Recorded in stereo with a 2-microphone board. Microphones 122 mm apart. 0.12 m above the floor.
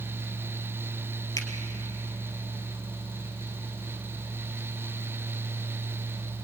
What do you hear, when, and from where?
1.4 s a finger snap: 30° left (ahead or behind), 2.5 m